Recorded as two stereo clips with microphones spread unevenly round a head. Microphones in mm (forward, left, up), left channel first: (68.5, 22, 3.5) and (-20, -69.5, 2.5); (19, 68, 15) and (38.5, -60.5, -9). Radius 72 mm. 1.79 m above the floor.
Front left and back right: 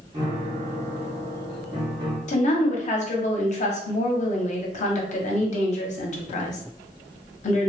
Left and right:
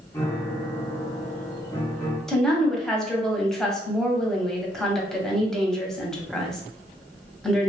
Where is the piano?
165° left, 0.7 m.